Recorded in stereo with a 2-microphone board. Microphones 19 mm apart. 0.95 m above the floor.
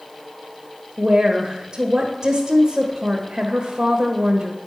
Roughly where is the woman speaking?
Right.